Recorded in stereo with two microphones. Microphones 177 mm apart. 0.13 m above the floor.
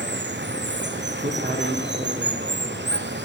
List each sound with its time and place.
0.0 s running water: 85° right, 1.3 m
1.2 s a man speaking: 40° right (ahead or behind), 4.5 m